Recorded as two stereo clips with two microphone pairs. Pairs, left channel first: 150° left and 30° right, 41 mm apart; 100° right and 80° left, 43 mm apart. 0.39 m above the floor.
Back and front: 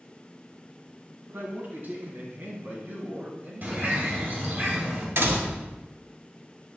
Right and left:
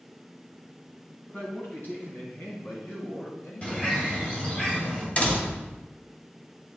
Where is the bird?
50° right, 2.5 m.